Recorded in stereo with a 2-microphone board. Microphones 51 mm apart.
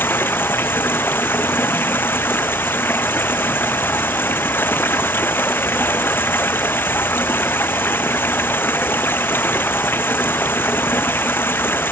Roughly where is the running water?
Left.